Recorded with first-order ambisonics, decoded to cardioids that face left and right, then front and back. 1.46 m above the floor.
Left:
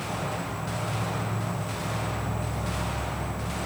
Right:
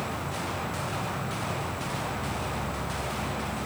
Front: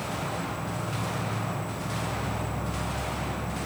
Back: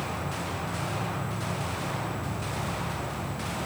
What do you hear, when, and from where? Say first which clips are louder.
0.0 s an insect: left 1 dB, front 1 dB; 60° left, 1.1 m